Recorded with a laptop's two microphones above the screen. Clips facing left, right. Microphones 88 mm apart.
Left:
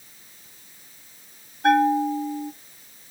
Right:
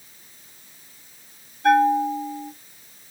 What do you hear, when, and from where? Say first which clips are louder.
1.6 s a bell: right 1 dB; 50° left (ahead or behind), 1.7 m